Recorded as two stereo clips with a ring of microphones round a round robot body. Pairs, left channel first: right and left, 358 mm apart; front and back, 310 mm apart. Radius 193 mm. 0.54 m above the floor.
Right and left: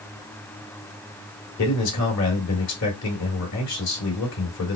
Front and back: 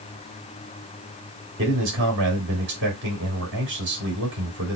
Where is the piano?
I don't hear a piano.